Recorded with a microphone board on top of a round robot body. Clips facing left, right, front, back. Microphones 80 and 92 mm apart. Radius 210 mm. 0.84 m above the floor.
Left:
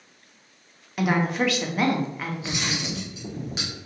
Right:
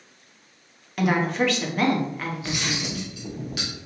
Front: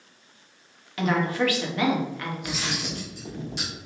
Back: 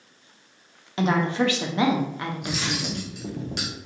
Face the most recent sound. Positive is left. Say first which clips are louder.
# right 1 dB, back 2 dB
turn(degrees=155)